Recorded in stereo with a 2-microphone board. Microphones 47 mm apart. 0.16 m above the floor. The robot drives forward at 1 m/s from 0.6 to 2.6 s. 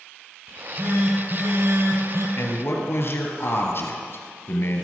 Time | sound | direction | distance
0.5 | a phone buzzing | 45° right (ahead or behind) | 3.5 m
2.4 | a man speaking | 50° left (ahead or behind) | 2.5 m